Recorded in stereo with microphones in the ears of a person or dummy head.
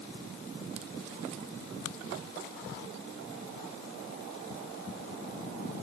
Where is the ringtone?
I don't hear a ringtone.